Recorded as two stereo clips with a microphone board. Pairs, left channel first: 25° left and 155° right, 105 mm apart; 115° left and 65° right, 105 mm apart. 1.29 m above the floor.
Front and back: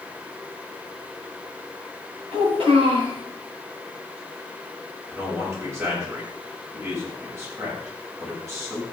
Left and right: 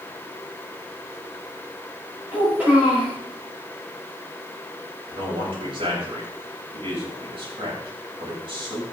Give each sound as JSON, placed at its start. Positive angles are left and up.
{"t": 2.3, "sound": "a child speaking", "azimuth_deg": -145, "distance_m": 5.5}
{"t": 5.1, "sound": "a man speaking", "azimuth_deg": -95, "distance_m": 7.0}